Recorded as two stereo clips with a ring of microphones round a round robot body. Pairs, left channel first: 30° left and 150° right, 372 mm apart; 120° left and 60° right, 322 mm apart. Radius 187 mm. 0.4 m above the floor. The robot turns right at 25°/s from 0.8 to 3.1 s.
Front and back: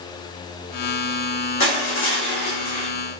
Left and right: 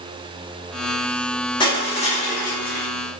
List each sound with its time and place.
1.6 s crushing: 50° left, 0.9 m; by 2.9 s 85° left, 0.9 m